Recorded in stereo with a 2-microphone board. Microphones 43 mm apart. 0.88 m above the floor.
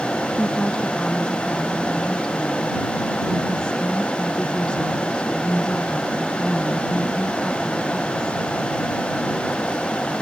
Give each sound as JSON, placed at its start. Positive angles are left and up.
{"t": 0.4, "sound": "a woman speaking", "side_deg": 20}